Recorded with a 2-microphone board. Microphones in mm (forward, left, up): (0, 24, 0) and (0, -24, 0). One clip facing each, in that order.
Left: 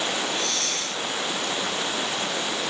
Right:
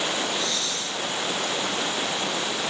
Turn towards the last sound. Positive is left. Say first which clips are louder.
# even
turn(degrees=60)  # may be behind; listen again after turning